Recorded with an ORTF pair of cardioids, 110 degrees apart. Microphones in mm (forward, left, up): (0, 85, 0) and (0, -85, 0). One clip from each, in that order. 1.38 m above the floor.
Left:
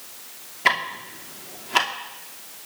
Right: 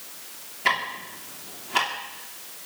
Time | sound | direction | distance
0.7 | ticking | 25° left | 2.5 m